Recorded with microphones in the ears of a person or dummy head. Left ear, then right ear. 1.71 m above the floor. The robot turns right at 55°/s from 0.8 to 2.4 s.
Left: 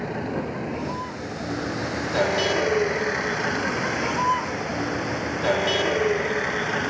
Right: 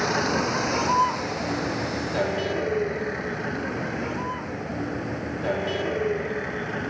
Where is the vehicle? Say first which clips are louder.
Right 6 dB; 60° right (ahead or behind); by 6.9 s 30° left (ahead or behind).